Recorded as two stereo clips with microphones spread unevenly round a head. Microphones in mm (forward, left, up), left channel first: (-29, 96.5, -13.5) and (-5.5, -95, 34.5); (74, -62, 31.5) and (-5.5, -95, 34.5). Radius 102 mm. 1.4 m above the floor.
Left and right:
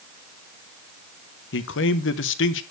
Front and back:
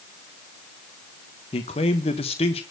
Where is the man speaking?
60° left, 1.1 m.